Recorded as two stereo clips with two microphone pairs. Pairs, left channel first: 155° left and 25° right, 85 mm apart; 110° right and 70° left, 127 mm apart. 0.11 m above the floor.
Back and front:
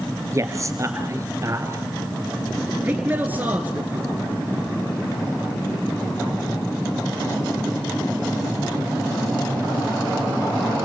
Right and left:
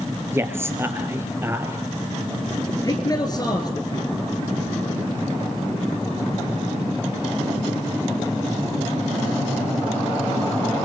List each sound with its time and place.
0.3 s a man speaking: 5° left, 2.5 m
2.8 s a man speaking: 75° right, 1.8 m